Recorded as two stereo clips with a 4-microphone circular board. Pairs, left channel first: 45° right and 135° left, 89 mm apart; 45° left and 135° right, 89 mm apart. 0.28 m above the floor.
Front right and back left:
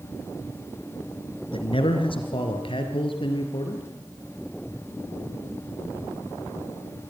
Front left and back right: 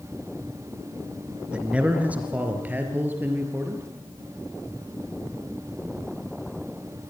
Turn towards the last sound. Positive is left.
turn(degrees=-70)